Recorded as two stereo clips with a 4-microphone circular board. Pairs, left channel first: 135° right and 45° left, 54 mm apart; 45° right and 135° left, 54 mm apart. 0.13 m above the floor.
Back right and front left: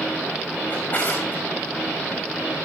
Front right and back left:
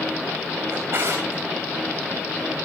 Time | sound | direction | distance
0.7 | a drawer | 170° left | 4 m